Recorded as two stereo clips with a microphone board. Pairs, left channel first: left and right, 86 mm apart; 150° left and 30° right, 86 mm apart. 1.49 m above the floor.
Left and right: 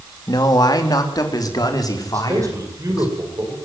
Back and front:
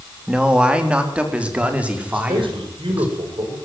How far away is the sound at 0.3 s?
About 3 m.